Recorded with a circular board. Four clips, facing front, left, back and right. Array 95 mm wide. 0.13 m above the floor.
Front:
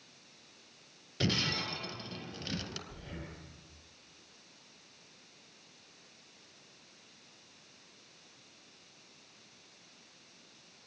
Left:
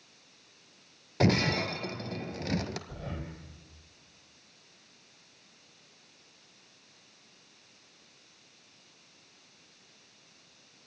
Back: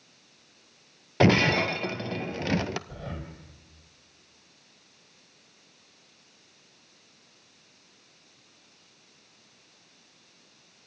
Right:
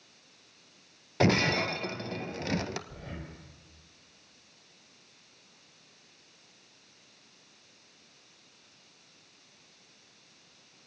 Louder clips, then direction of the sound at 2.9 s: Left 3 dB, back 7 dB; 155° left.